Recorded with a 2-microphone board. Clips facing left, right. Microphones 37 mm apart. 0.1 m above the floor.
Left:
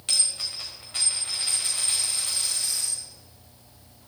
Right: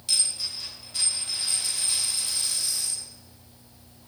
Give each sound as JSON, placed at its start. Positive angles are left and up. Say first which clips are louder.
{"t": 0.1, "sound": "a dropped coin", "louder": "even", "side_deg": 55, "distance_m": 4.0}